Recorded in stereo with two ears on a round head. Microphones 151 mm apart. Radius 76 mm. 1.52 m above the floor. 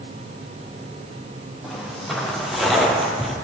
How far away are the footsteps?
About 3 m.